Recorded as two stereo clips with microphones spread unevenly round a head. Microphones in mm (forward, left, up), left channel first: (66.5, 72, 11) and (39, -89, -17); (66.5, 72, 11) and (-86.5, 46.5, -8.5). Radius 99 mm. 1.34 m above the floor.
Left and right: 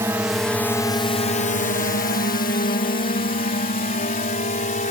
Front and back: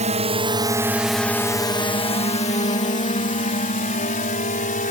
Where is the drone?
165° right; by 4.9 s 40° left.